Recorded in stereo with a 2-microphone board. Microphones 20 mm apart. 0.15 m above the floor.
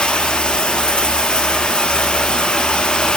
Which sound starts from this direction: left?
Running water, at 0.0 s.